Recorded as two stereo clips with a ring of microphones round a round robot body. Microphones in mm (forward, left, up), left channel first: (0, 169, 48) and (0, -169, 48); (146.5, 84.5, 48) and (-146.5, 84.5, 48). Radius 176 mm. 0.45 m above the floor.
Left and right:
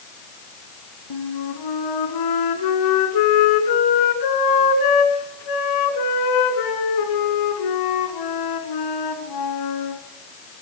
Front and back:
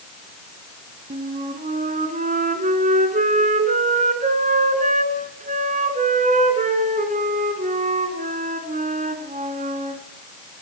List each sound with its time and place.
1.1 s a flute: 115° left, 2.5 m